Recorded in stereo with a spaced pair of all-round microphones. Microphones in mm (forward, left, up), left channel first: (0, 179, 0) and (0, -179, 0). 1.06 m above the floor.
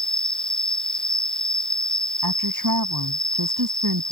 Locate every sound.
0.0 s an insect: centre (ahead or behind)
2.2 s a woman speaking: 65° right (ahead or behind)